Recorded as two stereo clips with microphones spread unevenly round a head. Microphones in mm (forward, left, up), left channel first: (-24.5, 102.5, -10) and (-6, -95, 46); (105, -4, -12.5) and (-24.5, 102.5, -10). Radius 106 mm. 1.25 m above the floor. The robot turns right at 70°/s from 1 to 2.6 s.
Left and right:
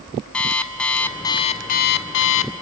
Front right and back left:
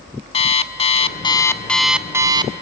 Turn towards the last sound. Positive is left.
turn(degrees=105)